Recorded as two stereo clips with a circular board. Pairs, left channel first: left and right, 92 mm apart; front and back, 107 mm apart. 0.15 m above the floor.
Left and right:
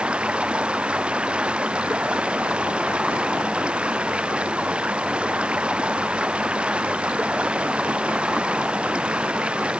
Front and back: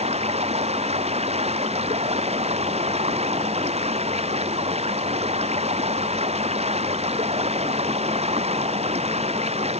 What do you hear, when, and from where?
0.0 s running water: 170° right